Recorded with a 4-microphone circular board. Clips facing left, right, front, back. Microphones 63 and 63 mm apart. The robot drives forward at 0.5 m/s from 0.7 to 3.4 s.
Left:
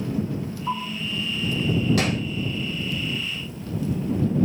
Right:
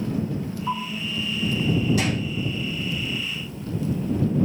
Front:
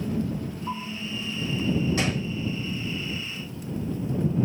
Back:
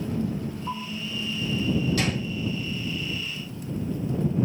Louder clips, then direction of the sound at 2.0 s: Left 1 dB, even; 65° left.